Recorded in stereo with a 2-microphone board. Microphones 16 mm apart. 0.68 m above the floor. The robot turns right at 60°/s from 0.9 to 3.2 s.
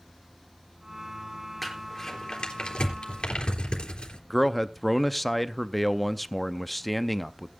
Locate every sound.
1.6 s crumpling: centre (ahead or behind), 3.5 m; by 4.2 s 85° left, 3.5 m
4.3 s a man speaking: centre (ahead or behind), 0.6 m